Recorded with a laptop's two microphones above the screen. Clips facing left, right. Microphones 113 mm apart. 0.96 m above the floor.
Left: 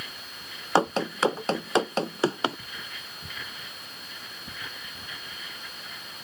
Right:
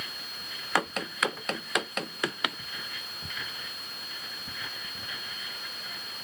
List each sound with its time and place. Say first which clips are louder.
0.8 s running footsteps: left 6 dB; 30° left (ahead or behind)